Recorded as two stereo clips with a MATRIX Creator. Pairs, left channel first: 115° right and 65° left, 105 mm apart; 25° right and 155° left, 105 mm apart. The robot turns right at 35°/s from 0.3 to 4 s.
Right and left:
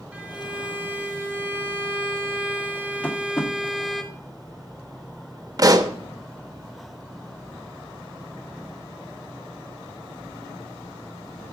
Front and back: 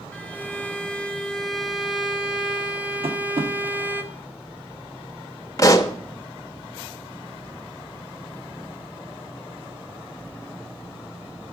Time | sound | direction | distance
0.1 | a violin | 20° left | 1.0 m
3.0 | tapping | 170° left | 1.3 m
5.6 | a pop | 25° left | 0.8 m